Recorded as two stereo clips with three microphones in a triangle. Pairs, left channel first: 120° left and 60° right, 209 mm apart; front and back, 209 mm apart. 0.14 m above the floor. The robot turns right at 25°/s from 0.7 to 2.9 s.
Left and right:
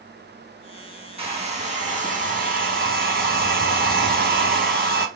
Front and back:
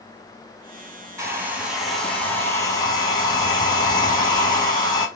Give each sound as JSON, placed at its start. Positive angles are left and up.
{"t": 1.2, "sound": "a hair dryer", "azimuth_deg": -110, "distance_m": 1.1}